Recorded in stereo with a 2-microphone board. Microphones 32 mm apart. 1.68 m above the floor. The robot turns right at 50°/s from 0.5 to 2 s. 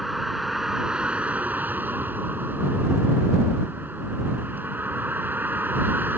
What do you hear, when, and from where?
0.0 s a vehicle: 175° right; by 6.2 s 100° right